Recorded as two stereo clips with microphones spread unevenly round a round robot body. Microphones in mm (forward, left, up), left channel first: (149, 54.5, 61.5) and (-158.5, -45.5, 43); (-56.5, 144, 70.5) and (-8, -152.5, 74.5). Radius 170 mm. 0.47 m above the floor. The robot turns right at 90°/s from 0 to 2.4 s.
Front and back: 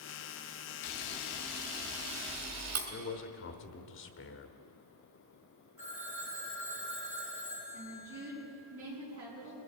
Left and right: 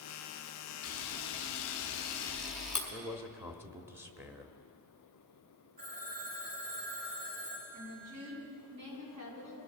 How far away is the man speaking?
About 1.1 m.